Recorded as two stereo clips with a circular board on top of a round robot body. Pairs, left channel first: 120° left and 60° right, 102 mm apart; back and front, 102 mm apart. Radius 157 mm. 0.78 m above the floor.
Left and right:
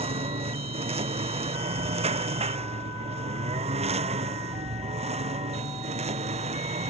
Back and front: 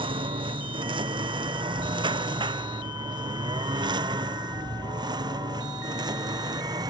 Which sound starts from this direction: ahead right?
A lawn mower, at 0.0 s.